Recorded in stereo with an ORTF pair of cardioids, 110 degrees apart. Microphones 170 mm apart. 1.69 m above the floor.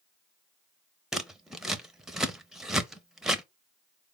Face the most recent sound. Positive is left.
turn(degrees=0)